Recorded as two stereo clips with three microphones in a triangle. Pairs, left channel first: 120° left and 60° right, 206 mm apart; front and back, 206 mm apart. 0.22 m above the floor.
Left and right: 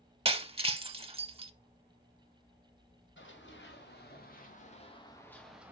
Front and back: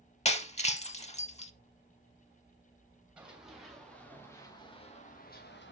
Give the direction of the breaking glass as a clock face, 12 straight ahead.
1 o'clock.